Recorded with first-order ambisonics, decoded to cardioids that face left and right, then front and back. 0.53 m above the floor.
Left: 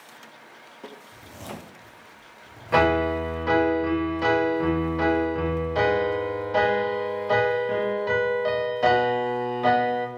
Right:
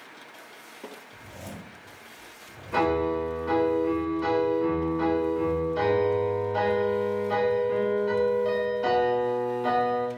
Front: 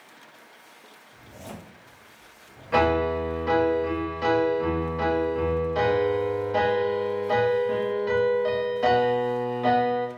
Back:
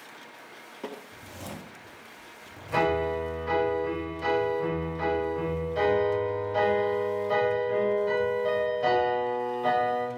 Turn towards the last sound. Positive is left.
turn(degrees=65)